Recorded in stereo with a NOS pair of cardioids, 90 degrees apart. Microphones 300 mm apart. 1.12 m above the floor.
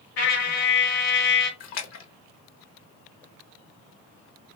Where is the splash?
60° left, 0.9 m.